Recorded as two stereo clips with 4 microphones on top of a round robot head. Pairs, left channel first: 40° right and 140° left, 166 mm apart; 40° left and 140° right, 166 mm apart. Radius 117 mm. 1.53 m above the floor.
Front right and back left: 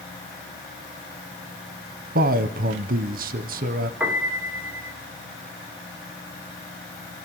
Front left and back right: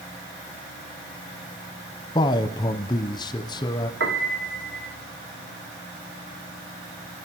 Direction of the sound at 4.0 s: 145° right.